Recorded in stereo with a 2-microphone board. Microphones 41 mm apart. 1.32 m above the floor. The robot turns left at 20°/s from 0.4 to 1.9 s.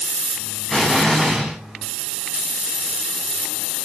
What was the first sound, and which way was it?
An explosion, 15° left (ahead or behind).